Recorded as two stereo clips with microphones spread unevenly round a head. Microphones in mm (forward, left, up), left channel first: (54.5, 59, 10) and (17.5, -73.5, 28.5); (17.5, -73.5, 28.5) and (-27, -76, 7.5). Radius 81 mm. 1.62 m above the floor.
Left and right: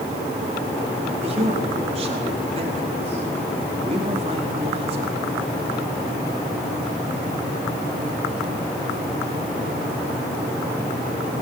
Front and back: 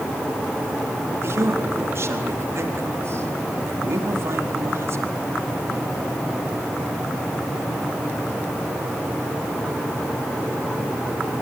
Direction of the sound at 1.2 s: 160° right.